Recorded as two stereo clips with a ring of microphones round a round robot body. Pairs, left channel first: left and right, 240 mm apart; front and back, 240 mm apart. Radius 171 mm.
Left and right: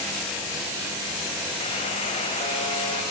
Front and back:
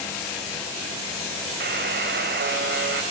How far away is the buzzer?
About 2 m.